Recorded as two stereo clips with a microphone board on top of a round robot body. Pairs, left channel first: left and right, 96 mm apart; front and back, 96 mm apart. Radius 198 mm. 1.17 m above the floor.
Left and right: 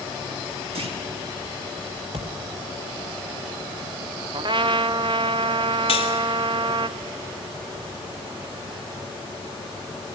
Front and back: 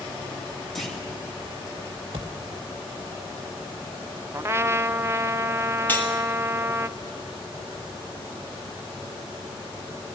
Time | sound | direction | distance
0.8 | a clunk | 85° right | 2.5 m
2.1 | a thud | 130° right | 0.6 m
4.3 | a trumpet | 120° right | 0.6 m
5.9 | cutlery clinking | 70° left | 1.8 m